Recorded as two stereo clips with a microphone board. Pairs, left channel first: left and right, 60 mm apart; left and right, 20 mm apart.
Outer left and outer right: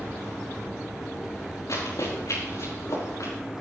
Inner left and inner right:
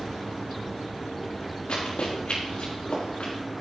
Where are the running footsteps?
75° left (ahead or behind), 4.5 m; by 3.3 s 80° left, 5 m.